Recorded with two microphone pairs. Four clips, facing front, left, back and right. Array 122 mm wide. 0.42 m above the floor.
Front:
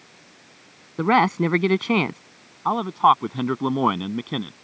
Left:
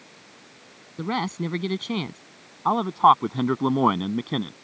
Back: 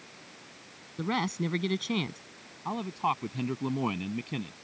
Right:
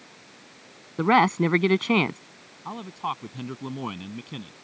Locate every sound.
1.0 s a man speaking: 35° right
2.6 s a man speaking: 55° left